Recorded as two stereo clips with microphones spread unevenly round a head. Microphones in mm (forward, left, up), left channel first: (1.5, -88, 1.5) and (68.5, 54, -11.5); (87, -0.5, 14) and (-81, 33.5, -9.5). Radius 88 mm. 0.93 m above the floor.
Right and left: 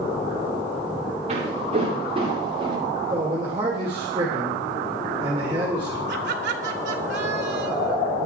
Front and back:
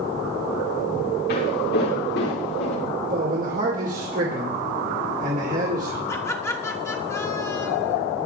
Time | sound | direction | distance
1.3 | footsteps | 15° left | 8 m
3.1 | a man speaking | 130° left | 2.5 m
6.1 | laughter | 65° left | 3 m